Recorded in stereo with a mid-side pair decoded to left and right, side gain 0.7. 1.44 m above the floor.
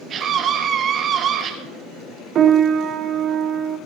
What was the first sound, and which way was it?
A scream, 40° right.